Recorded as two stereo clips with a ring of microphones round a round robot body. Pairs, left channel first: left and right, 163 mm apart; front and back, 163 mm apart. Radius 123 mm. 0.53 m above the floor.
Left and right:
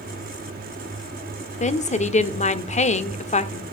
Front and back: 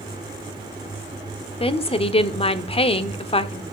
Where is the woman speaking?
50° left, 1.3 m.